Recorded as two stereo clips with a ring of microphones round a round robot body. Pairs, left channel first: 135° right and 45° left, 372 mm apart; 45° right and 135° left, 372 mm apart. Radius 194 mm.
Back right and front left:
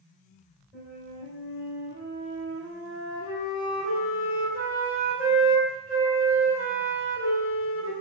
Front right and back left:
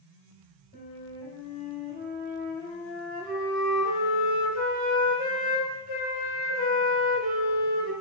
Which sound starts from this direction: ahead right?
A flute, at 0.7 s.